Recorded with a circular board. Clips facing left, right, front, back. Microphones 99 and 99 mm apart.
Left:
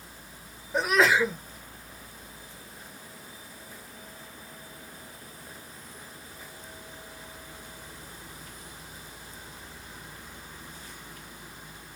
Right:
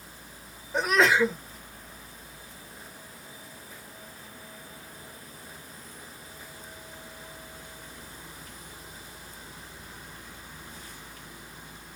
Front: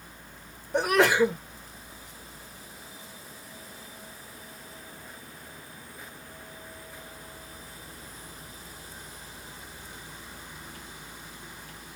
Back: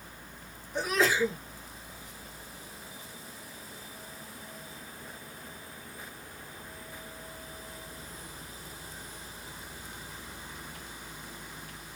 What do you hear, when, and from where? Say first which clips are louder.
0.7 s a sneeze: even, front 6 dB; straight ahead, 1.2 m